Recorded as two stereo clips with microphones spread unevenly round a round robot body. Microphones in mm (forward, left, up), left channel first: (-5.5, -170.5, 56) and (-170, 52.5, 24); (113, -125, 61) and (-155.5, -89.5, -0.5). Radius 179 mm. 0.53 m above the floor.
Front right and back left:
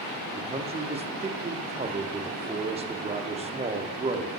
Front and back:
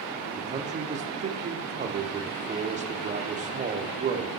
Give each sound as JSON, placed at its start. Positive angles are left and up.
{"t": 0.4, "sound": "a man speaking", "azimuth_deg": 170, "distance_m": 0.8}